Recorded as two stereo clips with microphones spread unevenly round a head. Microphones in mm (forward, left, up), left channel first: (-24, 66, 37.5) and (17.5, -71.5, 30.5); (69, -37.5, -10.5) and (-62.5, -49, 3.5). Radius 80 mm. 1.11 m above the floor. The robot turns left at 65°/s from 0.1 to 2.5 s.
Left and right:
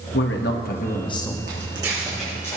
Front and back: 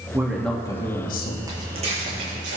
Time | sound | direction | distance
0.1 | a man speaking | 110° left | 1.3 m
1.5 | footsteps | 115° right | 4 m